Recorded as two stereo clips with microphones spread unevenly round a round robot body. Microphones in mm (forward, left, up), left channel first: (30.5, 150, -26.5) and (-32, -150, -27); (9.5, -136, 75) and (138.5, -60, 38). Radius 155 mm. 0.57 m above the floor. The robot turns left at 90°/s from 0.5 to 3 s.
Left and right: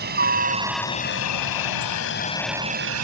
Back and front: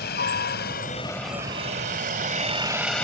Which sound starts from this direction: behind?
A helicopter, at 0.0 s.